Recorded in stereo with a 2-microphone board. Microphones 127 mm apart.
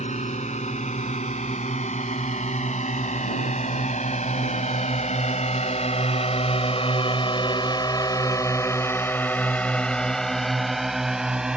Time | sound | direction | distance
0.0 | a drone | 65° left (ahead or behind) | ?